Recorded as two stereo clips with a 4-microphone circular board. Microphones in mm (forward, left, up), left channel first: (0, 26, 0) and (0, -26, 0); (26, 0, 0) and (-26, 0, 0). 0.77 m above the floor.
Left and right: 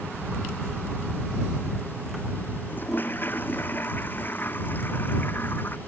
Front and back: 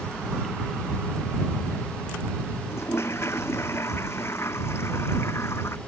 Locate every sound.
2.7 s a toilet flushing: 40° left